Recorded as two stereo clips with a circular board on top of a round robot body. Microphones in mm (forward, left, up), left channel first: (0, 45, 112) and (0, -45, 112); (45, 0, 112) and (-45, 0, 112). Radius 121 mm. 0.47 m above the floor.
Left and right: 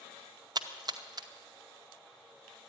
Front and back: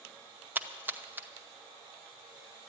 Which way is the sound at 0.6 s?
115° right.